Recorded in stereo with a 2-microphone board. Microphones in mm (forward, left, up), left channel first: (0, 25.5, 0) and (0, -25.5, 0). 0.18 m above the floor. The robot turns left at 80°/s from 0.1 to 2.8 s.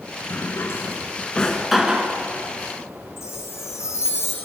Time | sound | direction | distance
0.3 | a drawer | 55° left (ahead or behind) | 1.2 m
3.2 | a chime | 65° left (ahead or behind) | 3.5 m